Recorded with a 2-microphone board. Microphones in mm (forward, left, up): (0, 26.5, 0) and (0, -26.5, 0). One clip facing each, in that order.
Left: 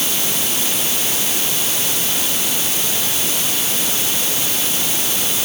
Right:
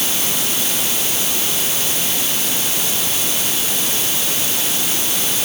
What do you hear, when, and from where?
Only background noise.